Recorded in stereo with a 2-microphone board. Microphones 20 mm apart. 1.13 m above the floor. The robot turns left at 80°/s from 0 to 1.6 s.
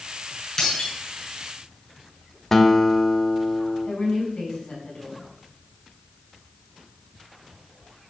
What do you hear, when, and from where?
0.6 s breaking glass: 25° left (ahead or behind), 6 m; by 0.9 s 50° left (ahead or behind), 6 m
2.5 s a guitar: 15° left (ahead or behind), 1.2 m
3.9 s a woman speaking: 80° left, 7 m